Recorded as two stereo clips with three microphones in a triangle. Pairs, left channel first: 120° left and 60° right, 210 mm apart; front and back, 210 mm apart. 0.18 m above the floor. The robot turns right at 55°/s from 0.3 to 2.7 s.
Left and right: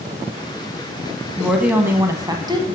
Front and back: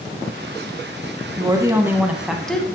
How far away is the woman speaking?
About 1.0 m.